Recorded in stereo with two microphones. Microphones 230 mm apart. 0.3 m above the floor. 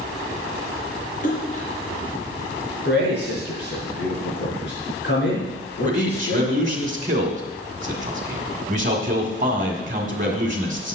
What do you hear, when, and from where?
1.2 s a splash: 35° left (ahead or behind), 3.5 m
2.9 s a man speaking: 50° left (ahead or behind), 5 m
5.8 s a man speaking: 35° right (ahead or behind), 1.8 m